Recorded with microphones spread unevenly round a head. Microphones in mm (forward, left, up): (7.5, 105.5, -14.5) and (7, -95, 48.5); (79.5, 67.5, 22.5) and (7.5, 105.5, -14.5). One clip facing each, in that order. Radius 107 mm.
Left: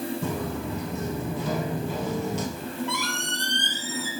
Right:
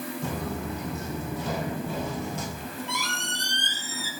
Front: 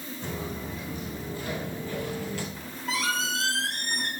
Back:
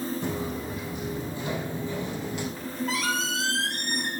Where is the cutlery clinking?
No cutlery clinking in this recording.